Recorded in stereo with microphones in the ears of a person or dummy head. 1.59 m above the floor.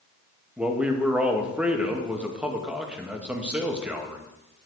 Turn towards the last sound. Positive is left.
turn(degrees=5)  # may be behind; listen again after turning